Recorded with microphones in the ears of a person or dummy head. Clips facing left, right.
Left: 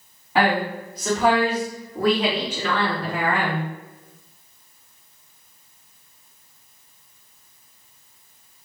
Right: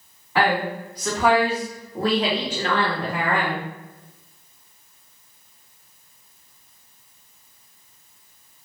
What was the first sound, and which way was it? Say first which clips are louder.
A woman speaking: left 1 dB; 15° left (ahead or behind).